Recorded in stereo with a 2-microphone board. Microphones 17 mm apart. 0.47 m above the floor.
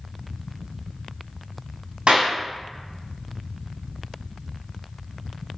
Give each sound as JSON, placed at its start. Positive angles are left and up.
{"t": 2.1, "sound": "a clap", "side_deg": -70, "distance_m": 3.5}